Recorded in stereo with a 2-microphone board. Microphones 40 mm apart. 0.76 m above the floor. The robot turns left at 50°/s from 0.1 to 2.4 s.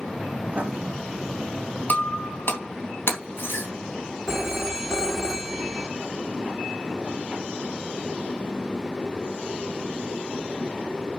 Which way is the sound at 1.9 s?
40° left (ahead or behind).